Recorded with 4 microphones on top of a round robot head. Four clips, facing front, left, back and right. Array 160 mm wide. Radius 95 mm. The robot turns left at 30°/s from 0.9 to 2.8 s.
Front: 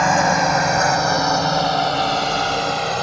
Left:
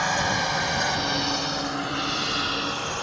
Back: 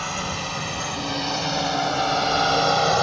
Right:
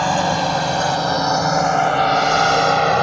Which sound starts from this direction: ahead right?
A drone, at 0.0 s.